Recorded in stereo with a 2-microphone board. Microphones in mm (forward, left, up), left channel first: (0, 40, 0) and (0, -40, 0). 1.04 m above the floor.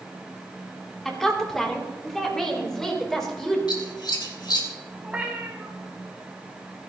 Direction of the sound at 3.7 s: 60° left (ahead or behind).